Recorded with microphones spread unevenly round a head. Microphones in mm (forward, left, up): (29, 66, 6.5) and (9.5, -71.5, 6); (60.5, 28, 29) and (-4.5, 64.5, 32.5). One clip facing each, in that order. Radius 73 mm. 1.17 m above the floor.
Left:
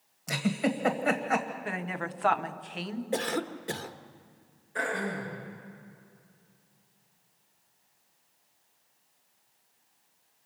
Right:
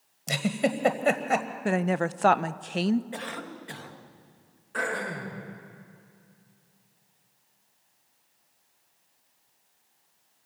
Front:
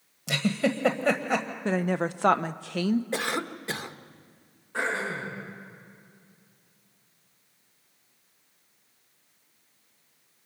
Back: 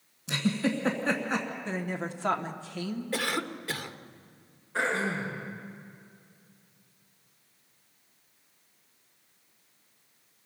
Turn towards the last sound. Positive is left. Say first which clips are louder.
# even, back 1 dB
turn(degrees=-90)